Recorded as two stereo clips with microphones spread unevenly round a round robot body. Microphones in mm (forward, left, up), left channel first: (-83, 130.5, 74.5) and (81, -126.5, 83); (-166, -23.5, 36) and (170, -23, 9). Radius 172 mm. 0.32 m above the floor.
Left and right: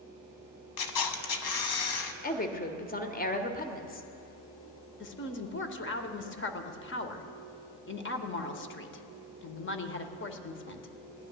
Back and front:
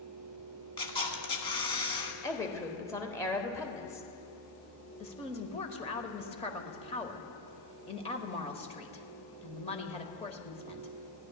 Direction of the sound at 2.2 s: 95° left.